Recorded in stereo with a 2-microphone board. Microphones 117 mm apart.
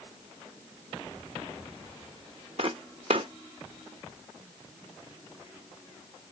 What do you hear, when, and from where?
2.6 s footsteps: 50° right (ahead or behind), 0.7 m